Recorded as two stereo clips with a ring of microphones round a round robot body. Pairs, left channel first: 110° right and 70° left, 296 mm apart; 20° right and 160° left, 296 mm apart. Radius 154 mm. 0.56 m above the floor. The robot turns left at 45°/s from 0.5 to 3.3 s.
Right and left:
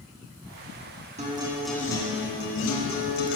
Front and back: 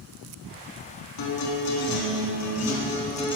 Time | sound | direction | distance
1.2 | a guitar | straight ahead | 3.5 m